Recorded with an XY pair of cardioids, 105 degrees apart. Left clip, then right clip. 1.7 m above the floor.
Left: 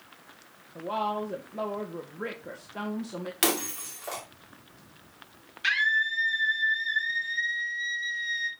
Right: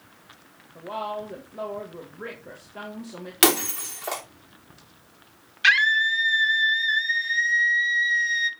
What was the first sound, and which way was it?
A woman speaking, 20° left.